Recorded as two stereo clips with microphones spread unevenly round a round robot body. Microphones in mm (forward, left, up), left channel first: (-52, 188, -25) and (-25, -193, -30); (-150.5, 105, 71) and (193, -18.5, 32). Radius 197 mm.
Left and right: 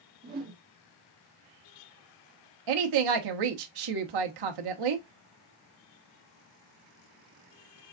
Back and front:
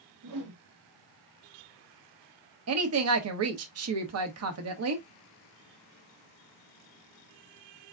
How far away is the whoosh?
About 1.4 m.